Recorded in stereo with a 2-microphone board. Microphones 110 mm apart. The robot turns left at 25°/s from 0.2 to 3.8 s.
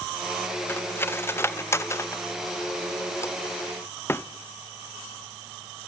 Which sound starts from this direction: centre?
Cutlery clinking, at 0.7 s.